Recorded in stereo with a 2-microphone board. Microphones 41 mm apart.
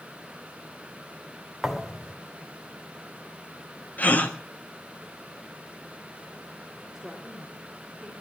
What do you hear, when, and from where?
1.6 s a thud: centre (ahead or behind), 1.7 m
4.0 s a gasp: 45° left (ahead or behind), 1.6 m
7.0 s a woman speaking: 10° right (ahead or behind), 4.5 m